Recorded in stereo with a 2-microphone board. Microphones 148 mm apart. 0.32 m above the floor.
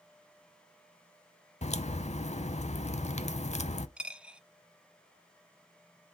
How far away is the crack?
About 0.6 m.